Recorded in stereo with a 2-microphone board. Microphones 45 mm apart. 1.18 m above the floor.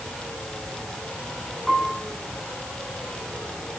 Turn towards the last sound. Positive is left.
turn(degrees=5)  # may be behind; listen again after turning